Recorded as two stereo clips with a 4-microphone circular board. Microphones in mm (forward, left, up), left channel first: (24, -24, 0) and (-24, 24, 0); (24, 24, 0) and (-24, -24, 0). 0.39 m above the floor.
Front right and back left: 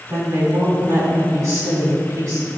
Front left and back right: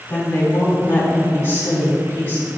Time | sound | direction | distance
0.1 | a woman speaking | 105° left | 3 m